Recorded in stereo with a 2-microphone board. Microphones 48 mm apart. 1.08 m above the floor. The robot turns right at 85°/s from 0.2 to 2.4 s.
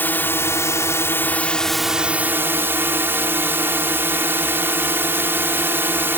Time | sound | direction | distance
0.0 | a drone | 45° left | ?